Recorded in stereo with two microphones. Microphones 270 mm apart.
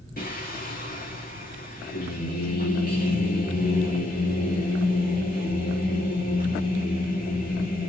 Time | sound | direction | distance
0.2 | singing | 35° left (ahead or behind) | 3.5 m